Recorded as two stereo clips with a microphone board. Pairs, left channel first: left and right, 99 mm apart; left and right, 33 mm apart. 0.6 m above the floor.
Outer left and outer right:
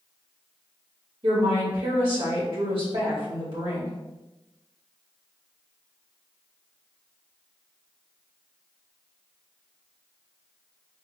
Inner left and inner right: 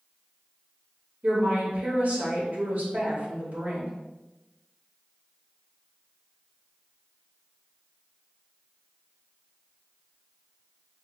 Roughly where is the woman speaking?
Right.